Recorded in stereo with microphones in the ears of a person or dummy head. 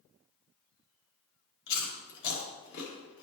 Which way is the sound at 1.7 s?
60° left (ahead or behind).